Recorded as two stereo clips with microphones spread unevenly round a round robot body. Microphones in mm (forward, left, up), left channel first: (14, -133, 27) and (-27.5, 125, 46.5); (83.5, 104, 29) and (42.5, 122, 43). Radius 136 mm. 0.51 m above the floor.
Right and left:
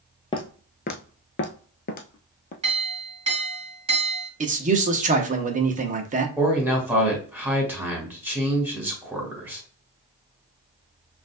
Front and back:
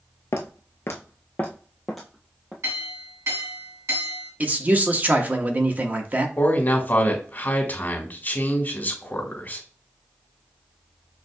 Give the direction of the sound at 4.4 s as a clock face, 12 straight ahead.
8 o'clock.